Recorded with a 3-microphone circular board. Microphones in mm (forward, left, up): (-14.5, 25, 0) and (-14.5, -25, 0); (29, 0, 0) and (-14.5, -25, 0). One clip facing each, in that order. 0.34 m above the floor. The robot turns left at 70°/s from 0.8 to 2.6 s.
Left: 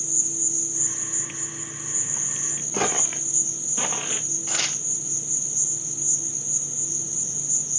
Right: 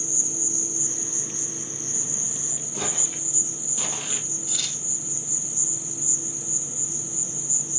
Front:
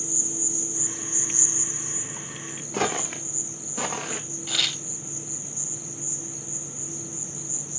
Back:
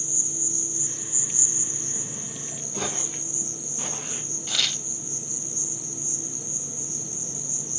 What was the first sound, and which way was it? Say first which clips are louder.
An insect: right 2 dB, front 3 dB; 45° right.